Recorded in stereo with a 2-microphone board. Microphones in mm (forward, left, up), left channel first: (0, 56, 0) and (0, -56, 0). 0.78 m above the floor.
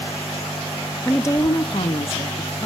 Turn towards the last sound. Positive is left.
turn(degrees=65)  # may be behind; listen again after turning